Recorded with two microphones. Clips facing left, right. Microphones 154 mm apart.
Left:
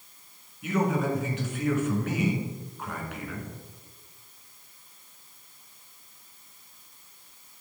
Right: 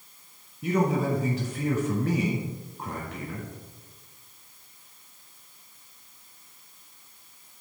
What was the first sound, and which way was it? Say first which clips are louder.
A man speaking: right 2 dB; 35° right (ahead or behind).